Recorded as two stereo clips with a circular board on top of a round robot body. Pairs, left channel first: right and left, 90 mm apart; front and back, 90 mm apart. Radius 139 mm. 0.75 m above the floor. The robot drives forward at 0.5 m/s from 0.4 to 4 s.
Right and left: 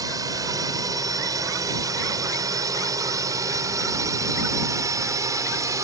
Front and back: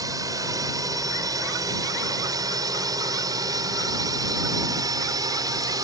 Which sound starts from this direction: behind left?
A drone, at 0.0 s.